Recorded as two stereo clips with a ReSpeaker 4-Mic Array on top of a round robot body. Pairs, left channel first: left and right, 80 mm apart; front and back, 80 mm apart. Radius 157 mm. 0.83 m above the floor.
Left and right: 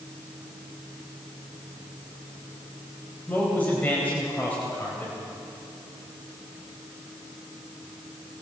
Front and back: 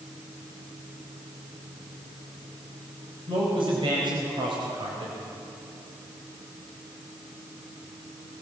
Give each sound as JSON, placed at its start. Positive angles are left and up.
{"t": 3.3, "sound": "a man speaking", "azimuth_deg": 165, "distance_m": 4.0}